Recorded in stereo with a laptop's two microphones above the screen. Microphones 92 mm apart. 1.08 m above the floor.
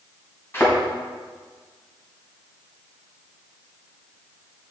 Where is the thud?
25° left (ahead or behind), 3.5 m.